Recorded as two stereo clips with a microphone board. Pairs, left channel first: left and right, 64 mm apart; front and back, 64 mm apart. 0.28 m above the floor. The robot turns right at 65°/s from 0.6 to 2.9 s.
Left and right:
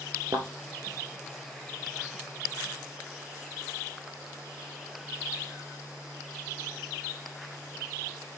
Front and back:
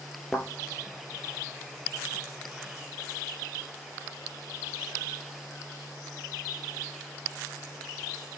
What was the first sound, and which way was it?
A thud, 80° right.